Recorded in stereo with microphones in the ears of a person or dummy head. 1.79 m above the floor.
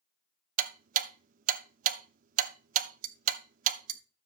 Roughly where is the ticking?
Right.